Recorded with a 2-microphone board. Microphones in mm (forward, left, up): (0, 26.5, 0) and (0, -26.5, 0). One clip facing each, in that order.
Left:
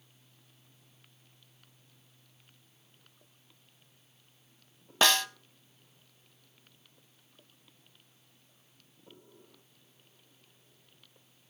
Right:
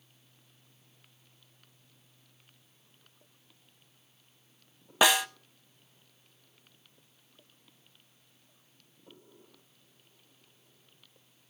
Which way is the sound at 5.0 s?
10° right (ahead or behind).